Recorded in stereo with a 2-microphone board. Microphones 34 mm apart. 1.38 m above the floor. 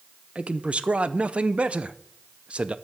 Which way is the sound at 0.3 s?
35° right (ahead or behind).